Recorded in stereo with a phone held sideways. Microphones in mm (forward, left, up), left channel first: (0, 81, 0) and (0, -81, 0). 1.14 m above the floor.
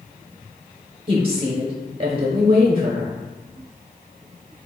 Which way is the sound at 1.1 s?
35° right (ahead or behind).